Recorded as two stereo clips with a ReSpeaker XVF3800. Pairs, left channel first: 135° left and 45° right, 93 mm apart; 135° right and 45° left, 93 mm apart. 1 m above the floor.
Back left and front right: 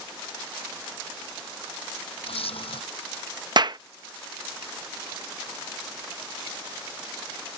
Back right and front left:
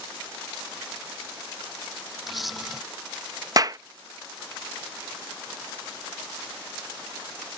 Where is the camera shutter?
135° left.